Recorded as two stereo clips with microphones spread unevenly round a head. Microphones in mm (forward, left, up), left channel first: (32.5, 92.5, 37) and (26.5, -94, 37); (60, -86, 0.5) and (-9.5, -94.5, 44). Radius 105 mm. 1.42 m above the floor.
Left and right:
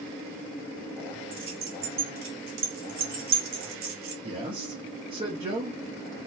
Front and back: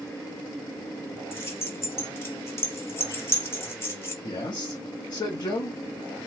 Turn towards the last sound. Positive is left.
turn(degrees=-35)